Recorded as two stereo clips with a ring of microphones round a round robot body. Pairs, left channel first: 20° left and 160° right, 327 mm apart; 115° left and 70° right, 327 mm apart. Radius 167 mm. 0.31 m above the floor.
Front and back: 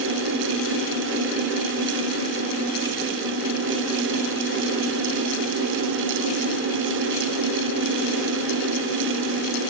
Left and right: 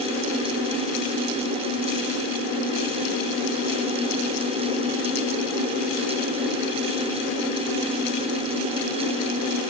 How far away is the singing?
I don't hear singing.